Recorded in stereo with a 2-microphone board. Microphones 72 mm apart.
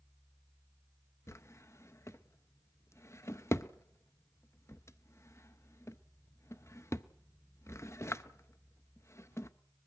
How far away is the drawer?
About 0.6 m.